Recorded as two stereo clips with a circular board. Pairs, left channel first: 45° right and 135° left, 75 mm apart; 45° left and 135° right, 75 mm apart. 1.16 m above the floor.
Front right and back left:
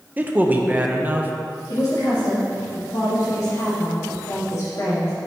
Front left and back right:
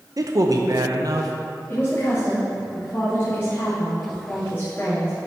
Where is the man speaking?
160° right, 0.9 m.